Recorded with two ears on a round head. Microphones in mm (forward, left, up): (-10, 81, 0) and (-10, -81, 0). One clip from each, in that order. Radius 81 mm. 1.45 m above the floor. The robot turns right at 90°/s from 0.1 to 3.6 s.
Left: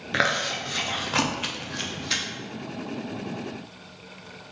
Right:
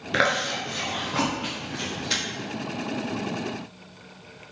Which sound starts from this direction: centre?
Chewing, at 0.1 s.